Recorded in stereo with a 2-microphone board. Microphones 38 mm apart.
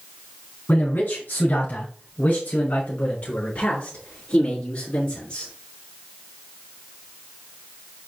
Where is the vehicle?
No vehicle in this recording.